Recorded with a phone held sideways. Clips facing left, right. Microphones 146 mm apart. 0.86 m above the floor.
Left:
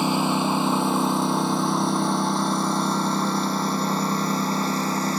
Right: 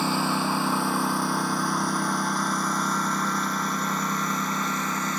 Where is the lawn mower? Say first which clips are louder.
Left 3 dB; 20° left (ahead or behind); by 5.2 s 35° left (ahead or behind).